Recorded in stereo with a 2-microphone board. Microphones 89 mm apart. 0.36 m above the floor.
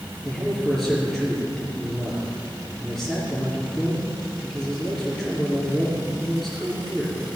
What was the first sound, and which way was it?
A man speaking, centre (ahead or behind).